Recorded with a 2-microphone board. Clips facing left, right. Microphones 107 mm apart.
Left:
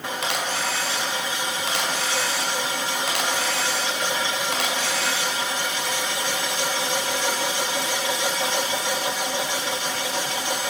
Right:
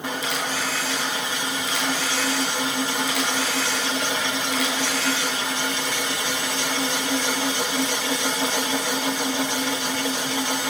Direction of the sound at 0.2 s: 75° left (ahead or behind).